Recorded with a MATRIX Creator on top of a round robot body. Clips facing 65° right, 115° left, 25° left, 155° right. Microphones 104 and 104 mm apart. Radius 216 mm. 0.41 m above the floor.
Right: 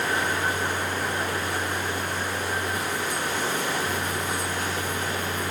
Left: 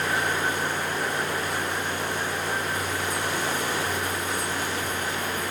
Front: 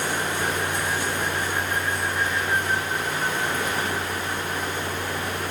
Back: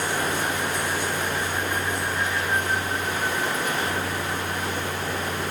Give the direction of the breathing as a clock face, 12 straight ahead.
No breathing in this recording.